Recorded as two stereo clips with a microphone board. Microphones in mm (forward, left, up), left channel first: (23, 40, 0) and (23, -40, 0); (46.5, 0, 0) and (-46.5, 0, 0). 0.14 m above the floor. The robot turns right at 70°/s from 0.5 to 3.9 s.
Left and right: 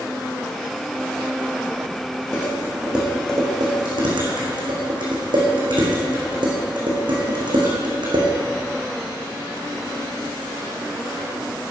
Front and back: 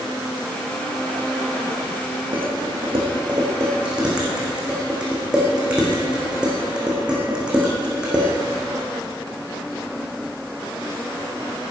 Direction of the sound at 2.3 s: 150° left.